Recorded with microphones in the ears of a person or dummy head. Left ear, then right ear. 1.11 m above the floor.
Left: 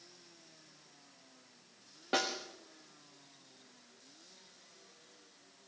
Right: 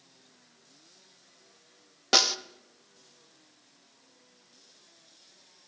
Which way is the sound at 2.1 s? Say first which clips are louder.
Right 11 dB; 85° right.